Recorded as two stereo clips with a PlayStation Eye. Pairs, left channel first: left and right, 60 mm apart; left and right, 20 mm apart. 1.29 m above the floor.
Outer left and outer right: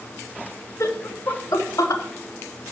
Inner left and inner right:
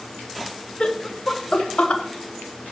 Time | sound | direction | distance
0.8 | laughter | 55° left (ahead or behind) | 2.0 m